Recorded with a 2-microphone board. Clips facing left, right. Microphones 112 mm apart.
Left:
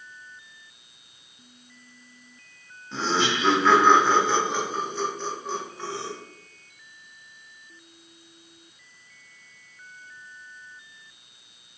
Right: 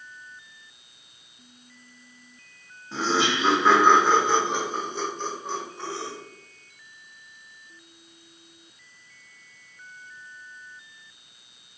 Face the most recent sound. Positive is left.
turn(degrees=-20)  # may be behind; listen again after turning